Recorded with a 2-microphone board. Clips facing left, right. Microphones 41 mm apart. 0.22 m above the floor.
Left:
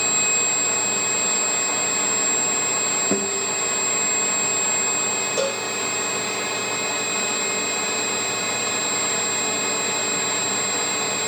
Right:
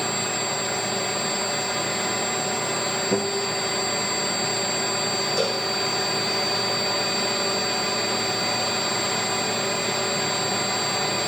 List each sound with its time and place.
3.1 s a guitar: 40° left (ahead or behind), 8.5 m
5.4 s a cowbell: 50° left (ahead or behind), 7 m